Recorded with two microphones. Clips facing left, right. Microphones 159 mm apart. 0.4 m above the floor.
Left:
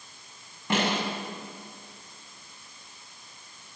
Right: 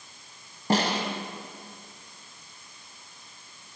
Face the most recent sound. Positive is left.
turn(degrees=-35)  # may be behind; listen again after turning